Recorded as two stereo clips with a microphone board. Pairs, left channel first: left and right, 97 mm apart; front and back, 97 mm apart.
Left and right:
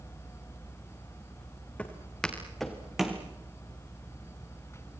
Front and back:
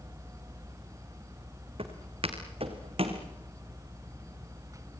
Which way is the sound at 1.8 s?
165° left.